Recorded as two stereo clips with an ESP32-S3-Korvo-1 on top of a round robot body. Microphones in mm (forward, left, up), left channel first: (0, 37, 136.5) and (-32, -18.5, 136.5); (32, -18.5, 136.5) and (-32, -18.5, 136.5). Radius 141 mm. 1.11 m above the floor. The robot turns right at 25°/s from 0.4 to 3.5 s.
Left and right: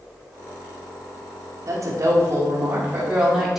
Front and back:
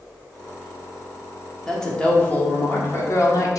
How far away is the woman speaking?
About 1.7 m.